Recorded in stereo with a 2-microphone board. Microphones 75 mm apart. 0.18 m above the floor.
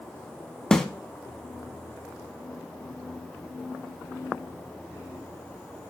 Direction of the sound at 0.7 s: 5° left (ahead or behind).